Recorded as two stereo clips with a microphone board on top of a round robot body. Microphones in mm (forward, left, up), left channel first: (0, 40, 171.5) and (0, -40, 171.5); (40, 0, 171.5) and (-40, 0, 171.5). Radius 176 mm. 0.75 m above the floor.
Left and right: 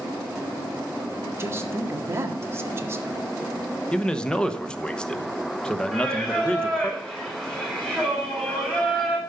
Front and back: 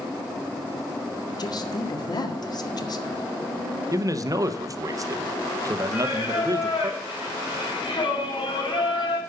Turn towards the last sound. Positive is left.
turn(degrees=10)